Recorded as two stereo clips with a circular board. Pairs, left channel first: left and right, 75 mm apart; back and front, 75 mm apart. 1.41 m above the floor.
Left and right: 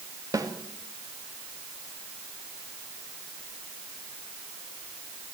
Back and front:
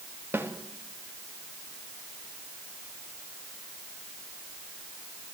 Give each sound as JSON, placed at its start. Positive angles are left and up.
{"t": 0.3, "sound": "a snare drum", "azimuth_deg": -60, "distance_m": 2.5}